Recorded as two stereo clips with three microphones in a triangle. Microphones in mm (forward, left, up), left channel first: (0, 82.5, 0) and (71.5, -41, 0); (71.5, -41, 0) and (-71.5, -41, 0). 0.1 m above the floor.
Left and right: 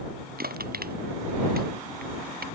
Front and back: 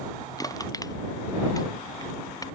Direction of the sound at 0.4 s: 65° right.